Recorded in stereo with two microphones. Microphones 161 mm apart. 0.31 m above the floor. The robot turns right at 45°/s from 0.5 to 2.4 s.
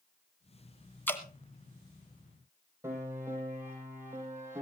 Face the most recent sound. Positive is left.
turn(degrees=-15)  # may be behind; listen again after turning